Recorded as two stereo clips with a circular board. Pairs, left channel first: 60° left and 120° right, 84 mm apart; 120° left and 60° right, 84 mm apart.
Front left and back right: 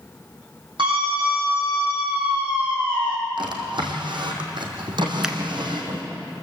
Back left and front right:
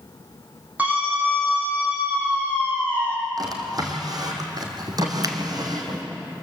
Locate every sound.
0.8 s a scream: 130° right, 8 m; by 3.2 s 120° right, 7 m
3.4 s a drawer: 100° right, 3 m
5.2 s a finger snap: 40° right, 1.5 m